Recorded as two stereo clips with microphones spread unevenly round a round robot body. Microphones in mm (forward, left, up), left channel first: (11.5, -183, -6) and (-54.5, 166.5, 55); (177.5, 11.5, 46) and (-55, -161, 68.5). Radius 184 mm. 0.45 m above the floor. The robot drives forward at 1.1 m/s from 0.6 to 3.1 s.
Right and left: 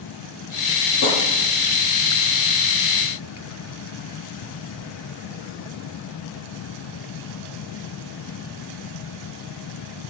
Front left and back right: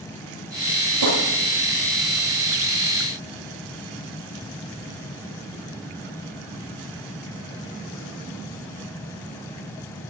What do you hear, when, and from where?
1.0 s tapping: 130° right, 10 m; by 1.2 s 135° right, 10 m